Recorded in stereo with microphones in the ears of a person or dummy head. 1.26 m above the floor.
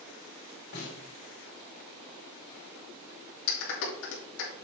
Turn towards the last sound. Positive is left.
turn(degrees=75)  # may be behind; listen again after turning